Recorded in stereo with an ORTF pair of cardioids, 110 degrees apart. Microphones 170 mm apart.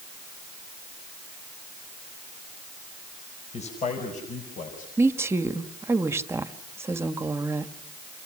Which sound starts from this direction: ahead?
A woman speaking, at 5.0 s.